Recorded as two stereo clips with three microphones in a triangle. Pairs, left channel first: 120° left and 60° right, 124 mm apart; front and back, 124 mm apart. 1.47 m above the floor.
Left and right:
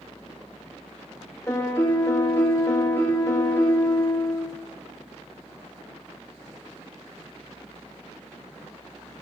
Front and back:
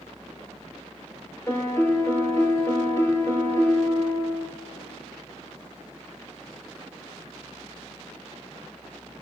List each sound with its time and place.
1.5 s a piano: 60° left, 1.0 m